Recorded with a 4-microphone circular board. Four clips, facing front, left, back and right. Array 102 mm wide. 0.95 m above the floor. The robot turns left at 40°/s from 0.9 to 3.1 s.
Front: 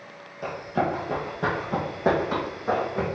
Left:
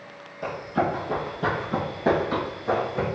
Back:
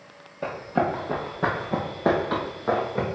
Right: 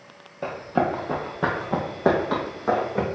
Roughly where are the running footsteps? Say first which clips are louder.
Right 2 dB, back 1 dB; behind right.